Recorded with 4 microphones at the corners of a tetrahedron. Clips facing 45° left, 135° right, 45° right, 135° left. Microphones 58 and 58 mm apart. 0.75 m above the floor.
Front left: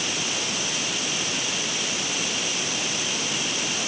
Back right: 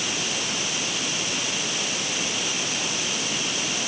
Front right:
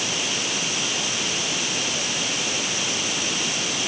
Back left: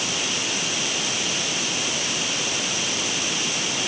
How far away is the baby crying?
No baby crying in this recording.